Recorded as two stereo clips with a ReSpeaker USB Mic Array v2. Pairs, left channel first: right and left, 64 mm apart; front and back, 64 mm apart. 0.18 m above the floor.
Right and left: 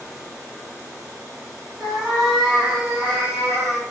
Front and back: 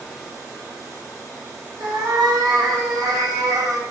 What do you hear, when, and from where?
1.8 s a cat meowing: 175° right, 2.5 m; by 3.8 s straight behind, 1.0 m